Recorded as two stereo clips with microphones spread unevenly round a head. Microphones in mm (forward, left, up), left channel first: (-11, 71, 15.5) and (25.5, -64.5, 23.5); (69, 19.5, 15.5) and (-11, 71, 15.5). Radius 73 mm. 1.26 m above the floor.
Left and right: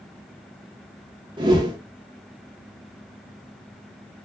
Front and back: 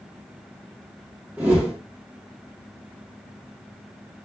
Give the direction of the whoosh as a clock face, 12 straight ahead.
4 o'clock.